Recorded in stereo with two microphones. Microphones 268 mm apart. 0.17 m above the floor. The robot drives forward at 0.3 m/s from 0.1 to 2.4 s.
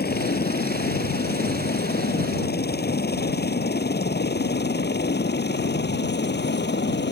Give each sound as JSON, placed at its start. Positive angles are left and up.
{"t": 0.0, "sound": "a helicopter", "side_deg": 35}